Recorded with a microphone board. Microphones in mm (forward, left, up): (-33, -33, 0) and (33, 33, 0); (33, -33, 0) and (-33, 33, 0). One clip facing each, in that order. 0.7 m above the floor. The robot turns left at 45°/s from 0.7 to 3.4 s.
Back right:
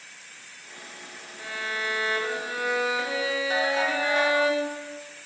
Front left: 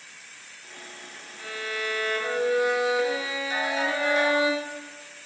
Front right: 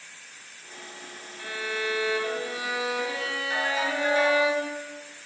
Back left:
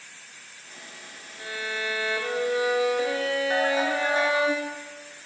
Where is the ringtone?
175° right, 1.1 m.